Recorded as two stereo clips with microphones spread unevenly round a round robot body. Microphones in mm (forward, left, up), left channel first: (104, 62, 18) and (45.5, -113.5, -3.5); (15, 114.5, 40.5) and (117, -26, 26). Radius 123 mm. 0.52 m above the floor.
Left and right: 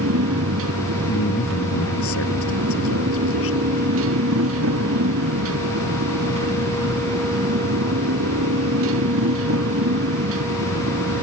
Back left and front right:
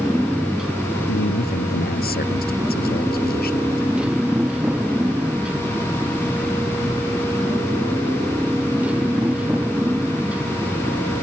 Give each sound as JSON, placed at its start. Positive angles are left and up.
{"t": 0.0, "sound": "a motorcycle", "azimuth_deg": -140}
{"t": 1.1, "sound": "a man speaking", "azimuth_deg": 95}